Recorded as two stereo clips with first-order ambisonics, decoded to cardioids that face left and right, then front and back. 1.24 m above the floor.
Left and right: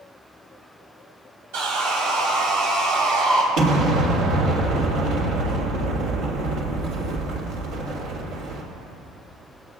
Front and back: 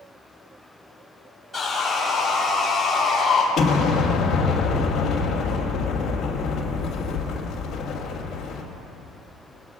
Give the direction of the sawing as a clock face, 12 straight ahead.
3 o'clock.